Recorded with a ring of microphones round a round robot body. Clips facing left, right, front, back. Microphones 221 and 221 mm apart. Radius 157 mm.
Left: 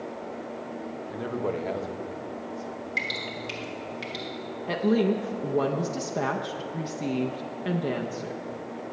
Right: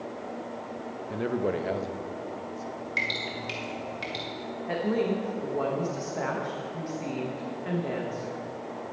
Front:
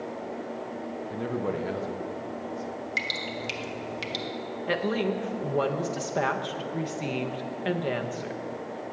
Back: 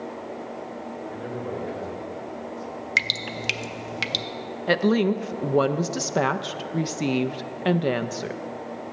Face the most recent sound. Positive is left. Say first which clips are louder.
# left 4 dB, back 7 dB
turn(degrees=140)